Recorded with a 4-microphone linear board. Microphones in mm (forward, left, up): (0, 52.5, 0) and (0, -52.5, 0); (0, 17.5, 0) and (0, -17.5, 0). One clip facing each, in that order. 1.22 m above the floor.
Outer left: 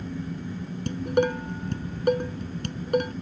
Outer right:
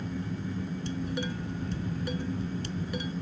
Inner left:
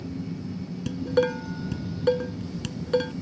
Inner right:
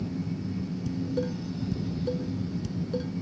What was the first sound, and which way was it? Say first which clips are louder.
Dishes clattering: outer left 14 dB, inner left 8 dB; 60° left (ahead or behind).